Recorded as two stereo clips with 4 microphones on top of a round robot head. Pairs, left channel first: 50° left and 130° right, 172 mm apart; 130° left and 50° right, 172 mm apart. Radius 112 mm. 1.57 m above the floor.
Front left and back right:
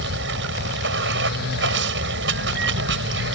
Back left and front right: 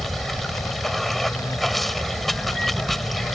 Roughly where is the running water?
Behind right.